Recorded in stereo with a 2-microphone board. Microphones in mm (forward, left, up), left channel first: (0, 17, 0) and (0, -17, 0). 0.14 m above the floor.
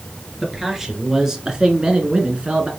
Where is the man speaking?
10° right (ahead or behind), 2 m; by 2.7 s 35° right (ahead or behind), 1.6 m.